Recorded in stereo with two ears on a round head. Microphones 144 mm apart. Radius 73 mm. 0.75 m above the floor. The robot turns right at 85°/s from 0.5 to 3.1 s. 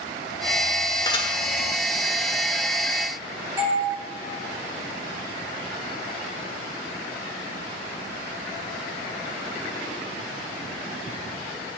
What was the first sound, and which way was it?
Dishes clattering, 25° left (ahead or behind).